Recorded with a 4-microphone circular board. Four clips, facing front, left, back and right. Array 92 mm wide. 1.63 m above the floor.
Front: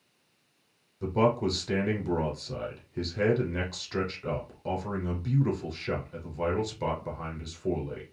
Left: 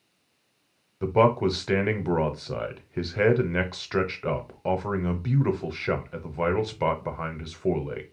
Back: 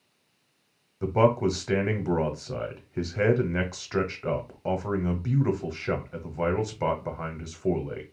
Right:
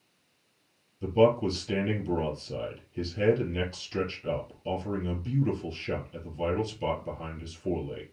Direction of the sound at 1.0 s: 110° left.